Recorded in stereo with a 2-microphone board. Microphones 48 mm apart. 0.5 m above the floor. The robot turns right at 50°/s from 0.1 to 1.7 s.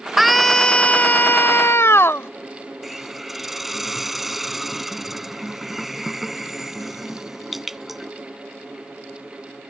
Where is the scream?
5° right; by 2.3 s 70° left.